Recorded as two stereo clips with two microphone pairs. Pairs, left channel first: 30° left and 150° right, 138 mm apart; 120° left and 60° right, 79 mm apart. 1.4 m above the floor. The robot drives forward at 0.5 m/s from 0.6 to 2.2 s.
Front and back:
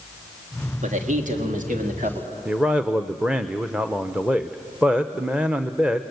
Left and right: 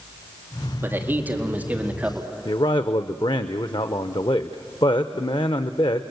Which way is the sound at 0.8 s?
125° right.